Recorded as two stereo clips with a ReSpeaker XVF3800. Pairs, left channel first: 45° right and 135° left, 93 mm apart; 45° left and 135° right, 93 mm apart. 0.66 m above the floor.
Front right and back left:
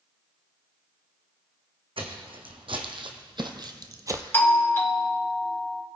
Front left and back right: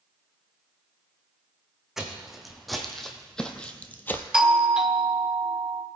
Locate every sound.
2.0 s footsteps: 140° left, 1.8 m; by 4.2 s 95° left, 0.8 m
4.3 s a doorbell: 65° right, 1.0 m